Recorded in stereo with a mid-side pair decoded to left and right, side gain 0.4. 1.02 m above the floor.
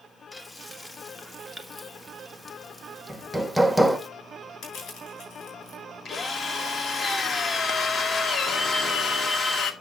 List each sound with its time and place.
0.3 s frying: 20° left, 1.9 m
3.1 s hammering: straight ahead, 1.7 m
4.6 s crushing: 65° left, 7.5 m
6.0 s a drill: 45° left, 1.8 m